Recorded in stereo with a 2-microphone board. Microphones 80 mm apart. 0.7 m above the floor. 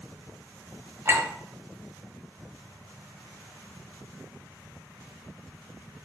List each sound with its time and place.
1.1 s a clink: 35° right (ahead or behind), 1.8 m